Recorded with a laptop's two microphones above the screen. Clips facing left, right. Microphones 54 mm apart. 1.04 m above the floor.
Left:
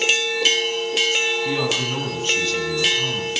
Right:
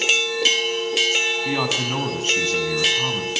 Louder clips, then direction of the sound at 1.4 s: Even; 30° right (ahead or behind).